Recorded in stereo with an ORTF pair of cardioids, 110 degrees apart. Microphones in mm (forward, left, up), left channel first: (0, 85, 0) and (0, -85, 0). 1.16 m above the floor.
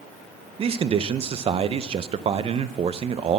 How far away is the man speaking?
About 0.7 m.